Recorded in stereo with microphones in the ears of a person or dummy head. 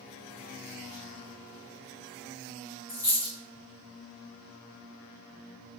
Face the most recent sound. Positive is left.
turn(degrees=-15)  # may be behind; listen again after turning